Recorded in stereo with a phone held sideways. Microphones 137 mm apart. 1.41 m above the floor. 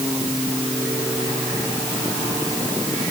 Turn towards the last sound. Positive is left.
No sound to turn to.